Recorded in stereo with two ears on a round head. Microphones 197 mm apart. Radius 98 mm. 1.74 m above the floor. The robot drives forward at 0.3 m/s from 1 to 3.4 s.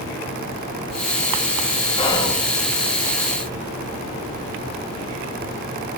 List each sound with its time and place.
2.0 s whispering: 20° left (ahead or behind), 1.0 m